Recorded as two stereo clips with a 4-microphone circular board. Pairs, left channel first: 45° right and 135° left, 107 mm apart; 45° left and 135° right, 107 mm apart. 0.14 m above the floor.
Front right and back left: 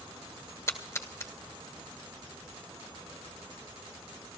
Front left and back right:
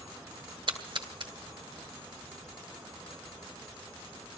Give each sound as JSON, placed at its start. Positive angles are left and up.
{"t": 0.7, "sound": "a splash", "azimuth_deg": -105, "distance_m": 1.3}